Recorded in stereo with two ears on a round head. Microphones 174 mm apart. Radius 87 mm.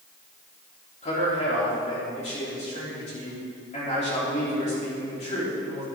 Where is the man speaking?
35° left (ahead or behind), 4 m.